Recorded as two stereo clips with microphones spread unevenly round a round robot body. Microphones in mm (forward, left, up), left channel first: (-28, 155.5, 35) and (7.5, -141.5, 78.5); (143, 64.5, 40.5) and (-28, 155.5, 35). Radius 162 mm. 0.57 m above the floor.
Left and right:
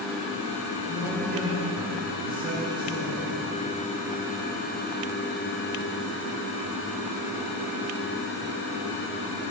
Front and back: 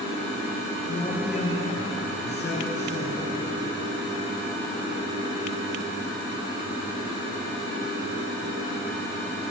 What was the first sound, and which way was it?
A man speaking, 5° left.